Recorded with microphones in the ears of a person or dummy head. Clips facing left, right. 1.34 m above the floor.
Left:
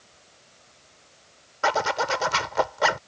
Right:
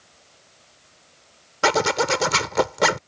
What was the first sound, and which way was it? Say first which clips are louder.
A zipper: right 4 dB; 50° right (ahead or behind).